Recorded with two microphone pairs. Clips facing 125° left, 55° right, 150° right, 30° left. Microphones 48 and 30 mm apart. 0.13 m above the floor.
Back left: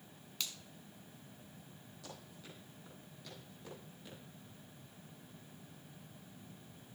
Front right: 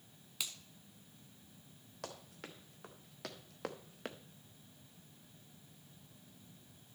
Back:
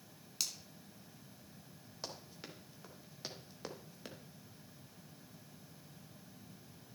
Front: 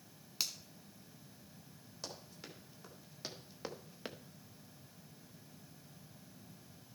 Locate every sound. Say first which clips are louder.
0.4 s a finger snap: even, front 1 dB; 10° left, 0.9 m
2.0 s running footsteps: front right 5 dB, back 1 dB; 80° right, 3 m; by 4.2 s 30° right, 0.9 m